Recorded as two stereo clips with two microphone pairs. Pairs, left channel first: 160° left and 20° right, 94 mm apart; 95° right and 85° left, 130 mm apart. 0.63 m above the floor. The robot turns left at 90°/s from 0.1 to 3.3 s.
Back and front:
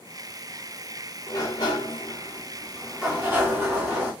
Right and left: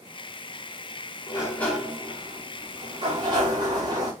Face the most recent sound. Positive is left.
turn(degrees=40)